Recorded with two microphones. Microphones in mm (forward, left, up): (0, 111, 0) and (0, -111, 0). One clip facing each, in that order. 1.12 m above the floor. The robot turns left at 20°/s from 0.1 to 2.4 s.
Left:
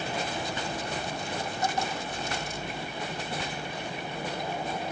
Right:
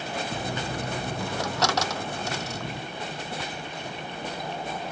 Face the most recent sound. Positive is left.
turn(degrees=-75)  # may be behind; listen again after turning